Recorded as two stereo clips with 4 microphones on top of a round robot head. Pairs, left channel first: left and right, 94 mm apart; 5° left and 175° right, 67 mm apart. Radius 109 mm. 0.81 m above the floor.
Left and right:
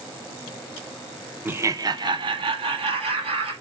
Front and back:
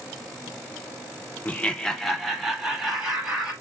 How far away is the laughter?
About 0.6 m.